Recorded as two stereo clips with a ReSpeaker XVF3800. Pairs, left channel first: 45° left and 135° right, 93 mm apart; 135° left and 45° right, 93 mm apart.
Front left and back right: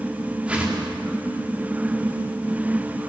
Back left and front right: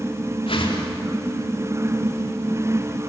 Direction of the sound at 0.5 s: 150° left.